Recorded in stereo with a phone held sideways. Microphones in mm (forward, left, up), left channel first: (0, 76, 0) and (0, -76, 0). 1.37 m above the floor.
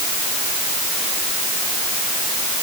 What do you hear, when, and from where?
Only background noise.